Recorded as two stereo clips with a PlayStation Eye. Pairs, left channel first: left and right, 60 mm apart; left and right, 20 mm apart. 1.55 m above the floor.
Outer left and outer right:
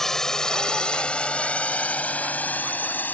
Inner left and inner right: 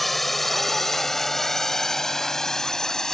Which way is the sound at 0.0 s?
5° left (ahead or behind).